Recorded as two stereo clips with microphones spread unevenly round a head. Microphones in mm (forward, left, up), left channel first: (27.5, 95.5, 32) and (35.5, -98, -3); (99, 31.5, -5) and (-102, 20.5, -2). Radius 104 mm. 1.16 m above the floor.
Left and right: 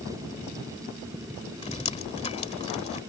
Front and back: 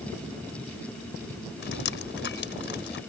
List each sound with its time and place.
1.6 s dripping: 35° left